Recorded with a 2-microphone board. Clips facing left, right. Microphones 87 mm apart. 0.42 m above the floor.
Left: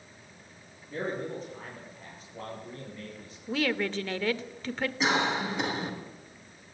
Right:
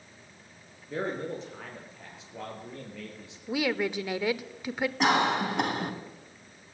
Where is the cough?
55° right (ahead or behind), 4 m.